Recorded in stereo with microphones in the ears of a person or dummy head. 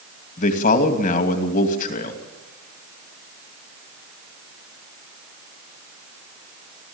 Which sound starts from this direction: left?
A man speaking, at 0.4 s.